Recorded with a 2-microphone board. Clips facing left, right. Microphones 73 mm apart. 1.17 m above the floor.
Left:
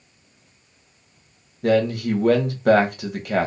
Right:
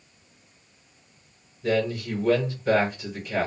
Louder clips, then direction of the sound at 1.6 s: Left 6 dB; 65° left (ahead or behind).